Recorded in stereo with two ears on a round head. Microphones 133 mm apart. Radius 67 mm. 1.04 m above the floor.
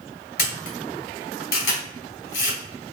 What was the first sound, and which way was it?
A camera shutter, 70° left (ahead or behind).